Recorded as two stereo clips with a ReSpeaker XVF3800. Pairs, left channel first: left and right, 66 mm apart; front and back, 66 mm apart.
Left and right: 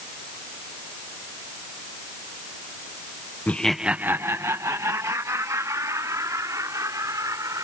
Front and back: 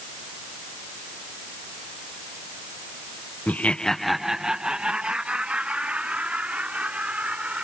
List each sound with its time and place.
3.5 s laughter: 45° left; by 7.6 s 115° right